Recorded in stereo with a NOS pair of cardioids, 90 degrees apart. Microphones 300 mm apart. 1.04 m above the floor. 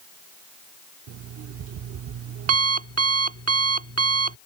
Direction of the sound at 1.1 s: 55° right.